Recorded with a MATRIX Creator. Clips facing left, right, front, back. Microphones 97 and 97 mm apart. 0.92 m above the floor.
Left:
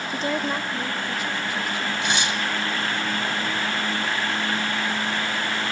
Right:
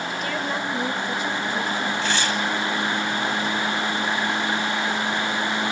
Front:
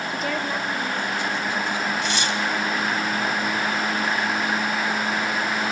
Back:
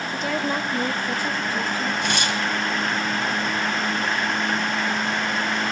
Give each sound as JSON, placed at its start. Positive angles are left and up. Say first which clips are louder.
{"t": 0.1, "sound": "a woman speaking", "louder": "left 5 dB, back 3 dB", "azimuth_deg": 75, "distance_m": 0.8}
{"t": 2.0, "sound": "tearing paper", "louder": "right 1 dB, back 1 dB", "azimuth_deg": 160, "distance_m": 1.4}